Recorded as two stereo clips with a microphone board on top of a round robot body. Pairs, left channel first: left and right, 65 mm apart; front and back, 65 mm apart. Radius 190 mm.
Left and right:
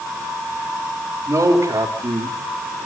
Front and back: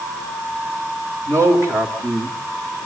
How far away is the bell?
No bell in this recording.